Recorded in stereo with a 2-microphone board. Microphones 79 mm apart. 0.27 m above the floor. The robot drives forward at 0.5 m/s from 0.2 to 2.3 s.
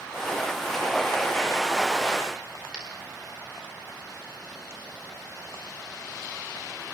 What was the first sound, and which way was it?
A dropped coin, 10° right (ahead or behind).